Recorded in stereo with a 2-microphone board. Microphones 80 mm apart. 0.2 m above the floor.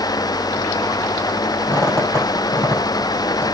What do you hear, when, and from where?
1.7 s a squeak: 35° left (ahead or behind), 5 m